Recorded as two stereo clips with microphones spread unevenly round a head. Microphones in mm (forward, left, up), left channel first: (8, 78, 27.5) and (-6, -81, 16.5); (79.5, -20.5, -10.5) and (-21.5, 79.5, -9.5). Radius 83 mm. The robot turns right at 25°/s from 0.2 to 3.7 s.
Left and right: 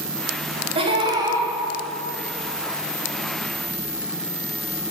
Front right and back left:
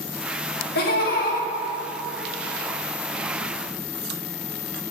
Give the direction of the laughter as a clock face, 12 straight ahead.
1 o'clock.